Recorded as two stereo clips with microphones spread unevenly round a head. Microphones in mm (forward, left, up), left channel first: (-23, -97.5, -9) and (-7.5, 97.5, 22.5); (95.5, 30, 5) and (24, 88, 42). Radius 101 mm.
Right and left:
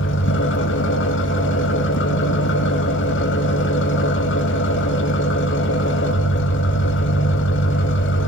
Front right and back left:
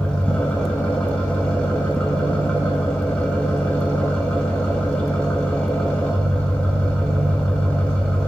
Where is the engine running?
125° right, 1.6 m.